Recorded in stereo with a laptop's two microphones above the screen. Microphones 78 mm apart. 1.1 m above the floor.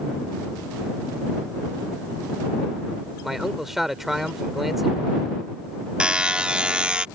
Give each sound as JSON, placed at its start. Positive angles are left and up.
{"t": 3.2, "sound": "a man speaking", "side_deg": -5}
{"t": 6.0, "sound": "a buzzer", "side_deg": -15}